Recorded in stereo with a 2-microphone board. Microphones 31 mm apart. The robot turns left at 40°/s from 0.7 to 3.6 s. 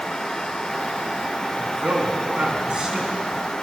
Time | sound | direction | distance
1.6 | a man speaking | 100° right | 4.5 m